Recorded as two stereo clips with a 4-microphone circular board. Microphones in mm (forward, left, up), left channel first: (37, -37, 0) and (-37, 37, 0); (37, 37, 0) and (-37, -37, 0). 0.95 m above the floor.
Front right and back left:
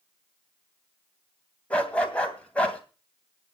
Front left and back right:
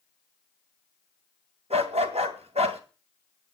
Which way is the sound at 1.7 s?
125° right.